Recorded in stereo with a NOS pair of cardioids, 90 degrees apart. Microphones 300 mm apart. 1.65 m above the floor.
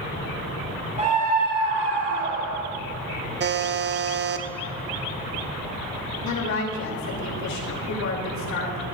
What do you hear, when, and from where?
1.0 s a scream: 20° right, 2.5 m; by 2.7 s 60° right, 2.5 m
3.4 s a buzzer: 35° right, 0.9 m
6.2 s a woman speaking: 60° left, 3 m